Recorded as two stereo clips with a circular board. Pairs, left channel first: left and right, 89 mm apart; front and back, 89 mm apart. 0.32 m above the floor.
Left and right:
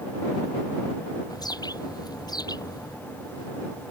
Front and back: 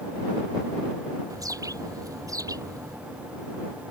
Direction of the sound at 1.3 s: 130° left.